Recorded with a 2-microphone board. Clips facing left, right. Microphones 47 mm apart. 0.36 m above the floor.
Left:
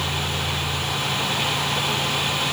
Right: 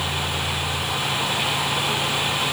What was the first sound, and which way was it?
Only background noise.